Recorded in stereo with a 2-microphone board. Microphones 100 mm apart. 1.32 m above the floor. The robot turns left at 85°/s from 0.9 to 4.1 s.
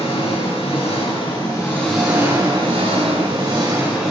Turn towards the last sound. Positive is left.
turn(degrees=175)